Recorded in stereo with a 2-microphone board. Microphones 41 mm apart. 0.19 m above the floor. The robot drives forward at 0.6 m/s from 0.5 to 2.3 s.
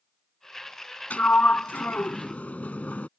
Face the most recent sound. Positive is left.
turn(degrees=40)  # may be behind; listen again after turning